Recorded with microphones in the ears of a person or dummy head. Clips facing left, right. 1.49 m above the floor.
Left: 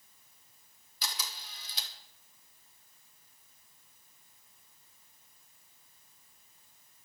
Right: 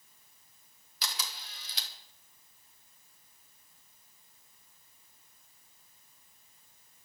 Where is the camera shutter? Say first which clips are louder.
Right 1 dB; 55° right (ahead or behind), 2 m.